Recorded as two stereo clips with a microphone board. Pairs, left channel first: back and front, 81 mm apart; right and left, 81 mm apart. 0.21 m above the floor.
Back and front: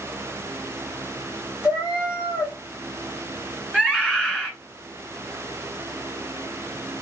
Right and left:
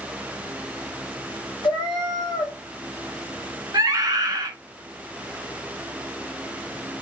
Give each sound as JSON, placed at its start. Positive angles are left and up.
{"t": 1.6, "sound": "a cat meowing", "azimuth_deg": -75, "distance_m": 1.3}
{"t": 3.7, "sound": "a scream", "azimuth_deg": 110, "distance_m": 1.3}